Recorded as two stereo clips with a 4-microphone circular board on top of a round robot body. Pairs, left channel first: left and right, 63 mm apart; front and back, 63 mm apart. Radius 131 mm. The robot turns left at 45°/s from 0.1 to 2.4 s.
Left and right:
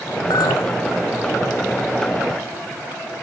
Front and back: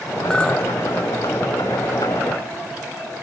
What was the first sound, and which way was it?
A clink, 80° left.